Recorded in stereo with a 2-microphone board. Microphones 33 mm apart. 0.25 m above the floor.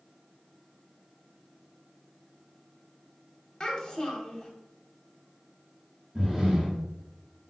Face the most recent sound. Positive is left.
turn(degrees=-20)  # may be behind; listen again after turning